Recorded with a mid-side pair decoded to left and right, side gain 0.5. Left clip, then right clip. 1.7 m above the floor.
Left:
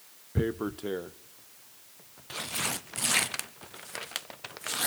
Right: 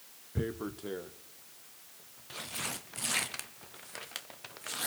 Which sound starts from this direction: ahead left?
Tearing paper, at 0.3 s.